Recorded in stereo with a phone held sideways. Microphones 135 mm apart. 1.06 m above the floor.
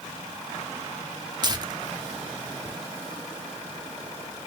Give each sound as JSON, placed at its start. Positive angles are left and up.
{"t": 1.4, "sound": "tearing paper", "side_deg": -30, "distance_m": 0.7}